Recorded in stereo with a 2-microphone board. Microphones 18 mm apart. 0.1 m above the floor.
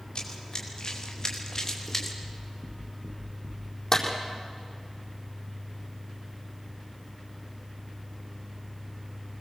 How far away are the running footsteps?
About 6 m.